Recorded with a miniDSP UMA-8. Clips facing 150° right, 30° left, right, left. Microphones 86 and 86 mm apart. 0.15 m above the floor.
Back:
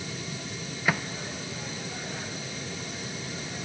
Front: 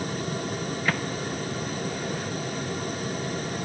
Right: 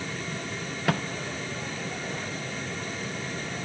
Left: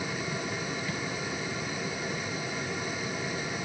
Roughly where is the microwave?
Right.